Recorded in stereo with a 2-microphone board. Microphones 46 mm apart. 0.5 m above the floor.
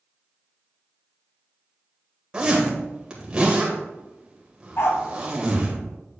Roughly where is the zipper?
Centre.